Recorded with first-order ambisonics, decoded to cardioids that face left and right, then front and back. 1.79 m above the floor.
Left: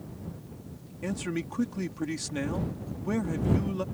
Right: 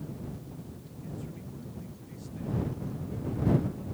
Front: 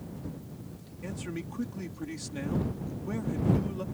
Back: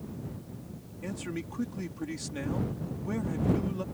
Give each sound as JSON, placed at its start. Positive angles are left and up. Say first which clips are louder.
{"t": 1.0, "sound": "a man speaking", "louder": "left 12 dB, back 1 dB", "azimuth_deg": 95}